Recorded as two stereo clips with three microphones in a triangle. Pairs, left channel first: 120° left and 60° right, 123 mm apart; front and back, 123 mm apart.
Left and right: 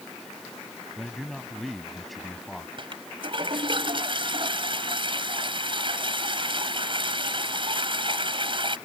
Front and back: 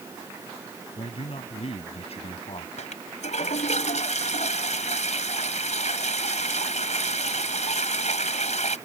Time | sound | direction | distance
1.0 | a man speaking | 30° left | ?
2.8 | a toilet flushing | 15° right | ?